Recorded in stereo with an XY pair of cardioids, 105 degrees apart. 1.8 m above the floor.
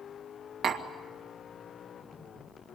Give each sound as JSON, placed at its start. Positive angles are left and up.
{"t": 0.6, "sound": "tapping", "azimuth_deg": -60, "distance_m": 2.0}